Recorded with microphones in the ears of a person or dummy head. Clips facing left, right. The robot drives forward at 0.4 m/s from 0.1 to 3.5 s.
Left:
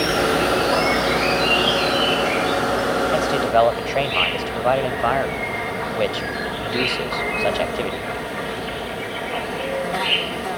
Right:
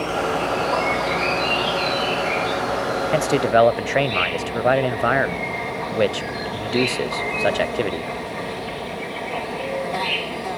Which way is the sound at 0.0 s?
20° left (ahead or behind).